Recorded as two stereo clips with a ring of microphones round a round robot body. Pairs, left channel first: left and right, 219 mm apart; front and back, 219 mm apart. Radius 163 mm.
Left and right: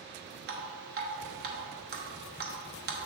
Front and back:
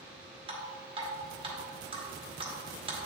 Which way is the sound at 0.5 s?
120° right.